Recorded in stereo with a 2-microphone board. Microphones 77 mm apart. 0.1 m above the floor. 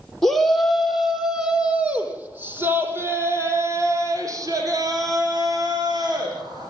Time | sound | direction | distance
0.2 | a shout | 5° left (ahead or behind) | 4.5 m